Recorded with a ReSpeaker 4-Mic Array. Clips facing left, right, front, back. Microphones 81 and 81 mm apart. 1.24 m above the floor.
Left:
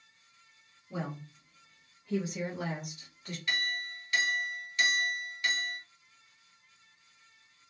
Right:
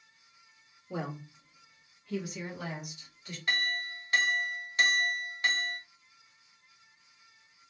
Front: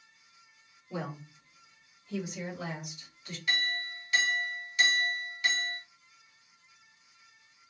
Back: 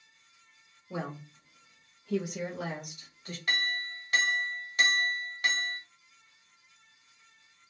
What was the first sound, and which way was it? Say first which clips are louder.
A woman speaking: right 1 dB, back 1 dB; 115° right.